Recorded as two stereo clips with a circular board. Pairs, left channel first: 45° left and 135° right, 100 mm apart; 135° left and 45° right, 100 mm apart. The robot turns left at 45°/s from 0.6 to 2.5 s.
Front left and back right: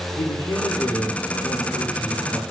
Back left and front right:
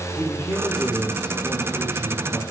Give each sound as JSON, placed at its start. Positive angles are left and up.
{"t": 0.2, "sound": "a man speaking", "azimuth_deg": 65, "distance_m": 2.5}